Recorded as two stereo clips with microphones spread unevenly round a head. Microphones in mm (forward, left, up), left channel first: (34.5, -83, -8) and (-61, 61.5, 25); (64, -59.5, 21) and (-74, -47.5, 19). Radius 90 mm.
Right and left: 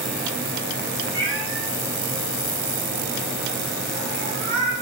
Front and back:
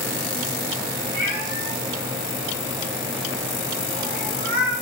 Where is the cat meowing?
35° left, 1.3 m; by 4.7 s 50° left, 4 m.